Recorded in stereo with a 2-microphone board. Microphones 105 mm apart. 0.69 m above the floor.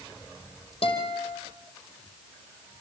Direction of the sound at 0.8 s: 55° left (ahead or behind).